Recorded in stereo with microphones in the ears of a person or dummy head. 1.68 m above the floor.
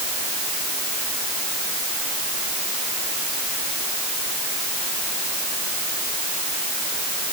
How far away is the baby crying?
I don't hear a baby crying.